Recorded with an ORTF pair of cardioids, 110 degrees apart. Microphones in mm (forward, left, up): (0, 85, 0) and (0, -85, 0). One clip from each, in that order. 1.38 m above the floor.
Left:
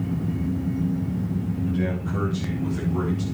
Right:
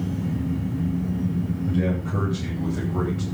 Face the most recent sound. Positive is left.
turn(degrees=-20)